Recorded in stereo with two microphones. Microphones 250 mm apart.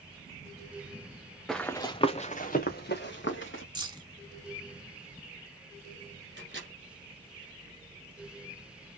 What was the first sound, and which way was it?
Running footsteps, centre (ahead or behind).